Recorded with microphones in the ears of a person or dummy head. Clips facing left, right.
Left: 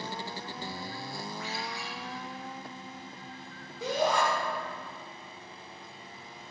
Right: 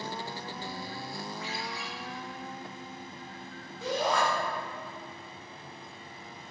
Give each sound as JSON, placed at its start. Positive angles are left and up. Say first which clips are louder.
{"t": 1.4, "sound": "a ringtone", "louder": "even", "side_deg": -25, "distance_m": 2.5}
{"t": 3.8, "sound": "a shout", "louder": "left 1 dB", "side_deg": 15, "distance_m": 2.0}